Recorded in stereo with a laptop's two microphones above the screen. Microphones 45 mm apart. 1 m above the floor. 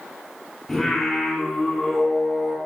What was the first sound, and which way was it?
Singing, 10° left (ahead or behind).